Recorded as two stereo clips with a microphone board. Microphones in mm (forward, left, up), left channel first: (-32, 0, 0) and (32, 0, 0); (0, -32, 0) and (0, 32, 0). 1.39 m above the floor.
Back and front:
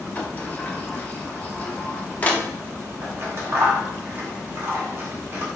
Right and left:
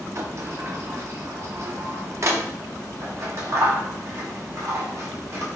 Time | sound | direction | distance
0.1 | a sliding door | 120° left | 0.5 m
3.0 | scissors | 50° left | 0.9 m